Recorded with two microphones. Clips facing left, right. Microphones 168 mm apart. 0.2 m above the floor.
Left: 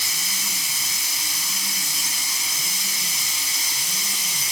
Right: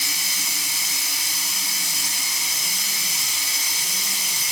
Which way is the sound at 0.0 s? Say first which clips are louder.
Right 1 dB; 70° right (ahead or behind).